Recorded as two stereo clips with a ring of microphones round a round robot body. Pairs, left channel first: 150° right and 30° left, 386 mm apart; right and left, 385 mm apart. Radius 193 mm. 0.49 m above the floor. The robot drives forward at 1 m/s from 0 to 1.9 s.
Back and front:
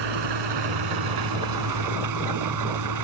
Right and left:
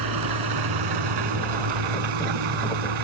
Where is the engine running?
55° left; by 3.0 s 70° left.